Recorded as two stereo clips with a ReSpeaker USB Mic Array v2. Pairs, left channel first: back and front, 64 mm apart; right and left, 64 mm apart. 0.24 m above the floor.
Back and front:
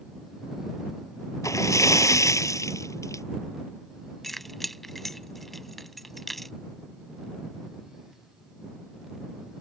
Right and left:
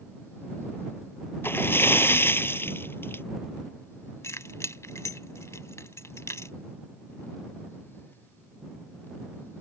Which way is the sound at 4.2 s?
90° right.